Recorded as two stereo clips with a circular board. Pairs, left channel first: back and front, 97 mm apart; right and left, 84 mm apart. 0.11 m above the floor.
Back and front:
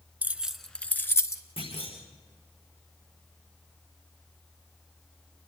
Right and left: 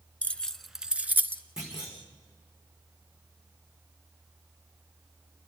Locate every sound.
0.2 s keys jangling: 45° right, 0.8 m; by 1.4 s 140° left, 1.0 m
1.6 s a clunk: 175° left, 6 m